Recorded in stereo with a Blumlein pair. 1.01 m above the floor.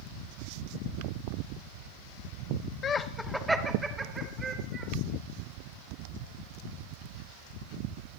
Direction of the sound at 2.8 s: 30° left.